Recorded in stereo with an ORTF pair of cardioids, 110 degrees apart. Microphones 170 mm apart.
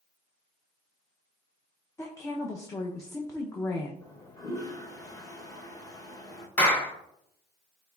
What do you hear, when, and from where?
2.0 s a woman speaking: 20° left, 0.5 m
4.0 s a toilet flushing: 25° left, 0.8 m
6.6 s a clap: 10° left, 1.0 m